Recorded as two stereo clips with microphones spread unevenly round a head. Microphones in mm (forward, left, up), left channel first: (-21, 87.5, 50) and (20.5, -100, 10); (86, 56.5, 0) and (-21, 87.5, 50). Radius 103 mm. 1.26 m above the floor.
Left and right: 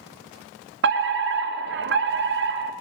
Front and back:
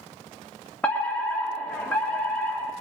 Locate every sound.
0.8 s a fire alarm: 90° right, 2.5 m